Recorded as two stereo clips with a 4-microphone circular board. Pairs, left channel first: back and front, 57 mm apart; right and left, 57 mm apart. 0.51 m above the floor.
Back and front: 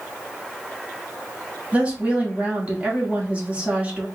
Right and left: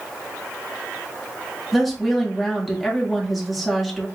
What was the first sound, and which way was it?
A woman speaking, 5° left.